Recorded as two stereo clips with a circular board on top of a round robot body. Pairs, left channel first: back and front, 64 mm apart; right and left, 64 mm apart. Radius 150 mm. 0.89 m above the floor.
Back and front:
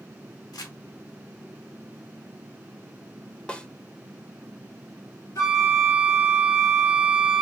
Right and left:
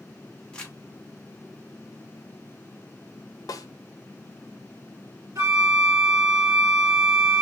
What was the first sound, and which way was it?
Crumpling, 165° right.